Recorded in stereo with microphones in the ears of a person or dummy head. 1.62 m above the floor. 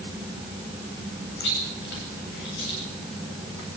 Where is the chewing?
65° left (ahead or behind), 9 m.